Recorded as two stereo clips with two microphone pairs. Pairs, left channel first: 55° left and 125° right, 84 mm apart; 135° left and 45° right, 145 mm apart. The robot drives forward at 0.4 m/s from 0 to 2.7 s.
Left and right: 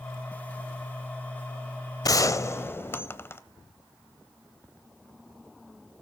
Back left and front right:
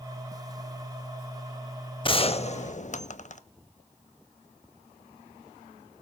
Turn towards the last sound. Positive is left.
turn(degrees=120)